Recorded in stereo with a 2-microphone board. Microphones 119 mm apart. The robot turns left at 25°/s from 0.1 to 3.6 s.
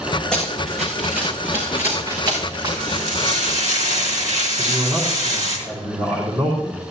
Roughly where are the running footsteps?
Centre.